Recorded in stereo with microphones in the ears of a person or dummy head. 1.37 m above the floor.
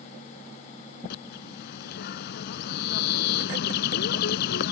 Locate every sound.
1.1 s a bird: 55° left (ahead or behind)